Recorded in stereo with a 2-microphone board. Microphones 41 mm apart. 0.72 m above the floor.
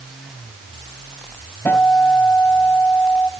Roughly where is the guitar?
Left.